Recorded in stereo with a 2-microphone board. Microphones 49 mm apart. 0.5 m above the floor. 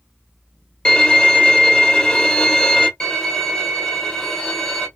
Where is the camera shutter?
No camera shutter in this recording.